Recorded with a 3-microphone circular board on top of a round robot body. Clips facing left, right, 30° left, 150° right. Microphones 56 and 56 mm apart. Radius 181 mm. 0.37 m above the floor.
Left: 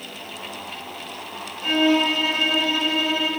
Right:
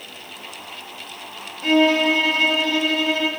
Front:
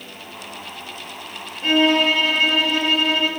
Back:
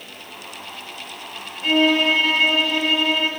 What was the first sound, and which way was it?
A violin, 60° right.